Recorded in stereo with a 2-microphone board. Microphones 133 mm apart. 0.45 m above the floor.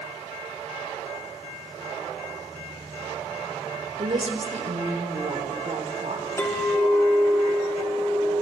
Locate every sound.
4.0 s a woman speaking: 50° right (ahead or behind), 1.3 m; by 6.2 s 60° right (ahead or behind), 3 m
6.4 s a clink: 20° left (ahead or behind), 1.8 m